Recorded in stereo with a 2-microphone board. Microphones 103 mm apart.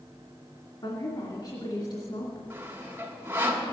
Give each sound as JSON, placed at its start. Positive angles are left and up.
{"t": 0.8, "sound": "a woman speaking", "side_deg": 45, "distance_m": 2.0}
{"t": 2.5, "sound": "sawing", "side_deg": -20, "distance_m": 1.8}